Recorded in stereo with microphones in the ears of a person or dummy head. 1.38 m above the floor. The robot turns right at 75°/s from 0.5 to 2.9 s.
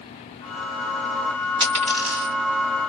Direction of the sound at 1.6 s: 30° right (ahead or behind).